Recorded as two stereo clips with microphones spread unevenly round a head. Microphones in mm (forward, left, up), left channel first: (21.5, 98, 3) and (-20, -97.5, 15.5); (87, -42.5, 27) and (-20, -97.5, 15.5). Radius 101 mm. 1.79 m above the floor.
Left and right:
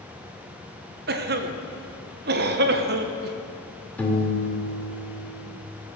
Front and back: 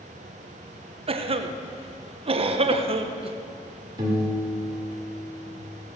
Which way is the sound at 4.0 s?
160° left.